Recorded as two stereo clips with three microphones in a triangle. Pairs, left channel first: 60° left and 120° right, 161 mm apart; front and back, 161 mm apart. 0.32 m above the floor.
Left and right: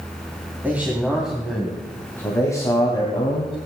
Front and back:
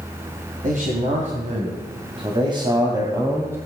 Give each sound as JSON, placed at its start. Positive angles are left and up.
{"t": 0.6, "sound": "a man speaking", "azimuth_deg": 165, "distance_m": 2.5}